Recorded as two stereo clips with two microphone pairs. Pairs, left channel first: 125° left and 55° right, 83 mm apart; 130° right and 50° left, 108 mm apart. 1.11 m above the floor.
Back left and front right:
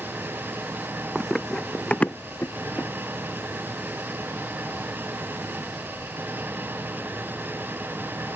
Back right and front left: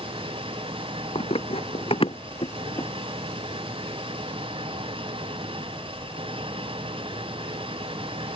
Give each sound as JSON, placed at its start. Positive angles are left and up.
{"t": 0.0, "sound": "an engine running", "azimuth_deg": 15}
{"t": 1.1, "sound": "running footsteps", "azimuth_deg": -140}